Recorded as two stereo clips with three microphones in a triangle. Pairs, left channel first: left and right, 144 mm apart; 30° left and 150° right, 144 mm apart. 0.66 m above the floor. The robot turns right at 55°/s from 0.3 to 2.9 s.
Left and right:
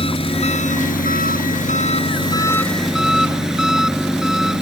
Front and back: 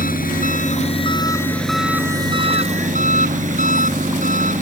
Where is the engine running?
40° left; by 4.6 s 175° right.